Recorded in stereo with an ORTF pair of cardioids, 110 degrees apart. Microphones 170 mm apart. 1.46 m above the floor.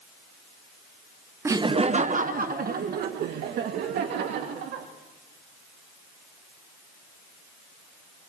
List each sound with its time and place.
1.4 s laughter: 15° right, 0.5 m; by 4.9 s 75° right, 3 m